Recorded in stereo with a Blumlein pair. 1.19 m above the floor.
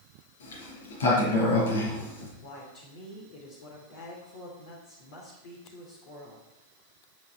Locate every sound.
0.4 s a sliding door: 60° left, 4.5 m
2.4 s a woman speaking: 50° left, 3.5 m